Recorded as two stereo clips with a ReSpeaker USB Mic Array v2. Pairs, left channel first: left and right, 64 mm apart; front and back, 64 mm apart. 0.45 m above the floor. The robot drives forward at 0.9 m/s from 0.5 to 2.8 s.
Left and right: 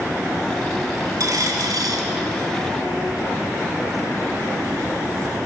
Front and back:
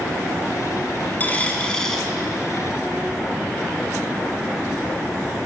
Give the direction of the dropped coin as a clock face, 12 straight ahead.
2 o'clock.